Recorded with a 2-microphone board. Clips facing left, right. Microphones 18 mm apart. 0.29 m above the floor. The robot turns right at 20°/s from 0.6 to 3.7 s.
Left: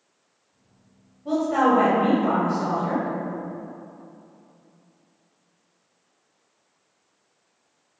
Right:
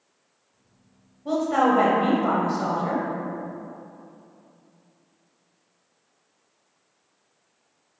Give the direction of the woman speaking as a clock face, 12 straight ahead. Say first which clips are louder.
Left 1 dB; 5 o'clock.